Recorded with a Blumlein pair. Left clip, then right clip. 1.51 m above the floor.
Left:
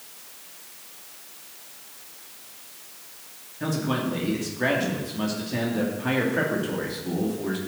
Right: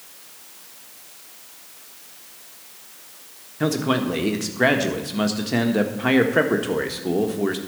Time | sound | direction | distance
3.6 | a man speaking | 45° right | 1.4 m